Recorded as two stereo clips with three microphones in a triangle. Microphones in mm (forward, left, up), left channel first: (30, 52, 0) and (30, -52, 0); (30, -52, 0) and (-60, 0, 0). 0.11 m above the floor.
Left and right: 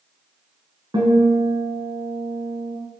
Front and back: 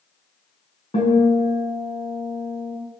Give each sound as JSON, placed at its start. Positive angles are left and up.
{"t": 0.9, "sound": "a guitar", "azimuth_deg": -45, "distance_m": 4.5}